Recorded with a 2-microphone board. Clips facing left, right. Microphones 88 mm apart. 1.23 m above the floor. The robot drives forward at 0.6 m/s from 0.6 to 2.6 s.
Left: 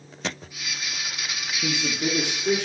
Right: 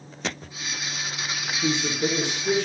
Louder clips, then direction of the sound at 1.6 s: Right 2 dB; 10° left (ahead or behind).